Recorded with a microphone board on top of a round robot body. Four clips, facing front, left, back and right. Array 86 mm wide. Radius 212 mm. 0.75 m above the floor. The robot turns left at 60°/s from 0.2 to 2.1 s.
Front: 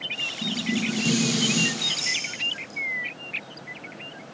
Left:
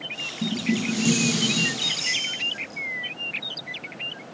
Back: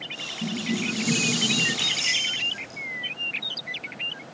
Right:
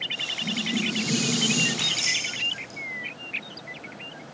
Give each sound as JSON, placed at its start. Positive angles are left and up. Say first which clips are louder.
{"t": 0.4, "sound": "dishes clattering", "louder": "left 4 dB, front 1 dB", "azimuth_deg": 90, "distance_m": 6.0}
{"t": 1.8, "sound": "keys jangling", "louder": "even, back 2 dB", "azimuth_deg": -120, "distance_m": 7.5}